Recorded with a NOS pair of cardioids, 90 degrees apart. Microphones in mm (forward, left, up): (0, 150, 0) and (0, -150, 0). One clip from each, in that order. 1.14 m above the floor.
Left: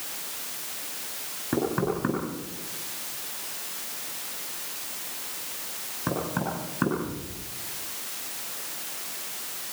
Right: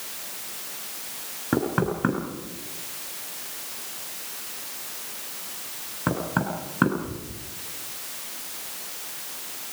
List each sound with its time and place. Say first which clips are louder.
1.5 s knocking: right 2 dB; 40° right, 8 m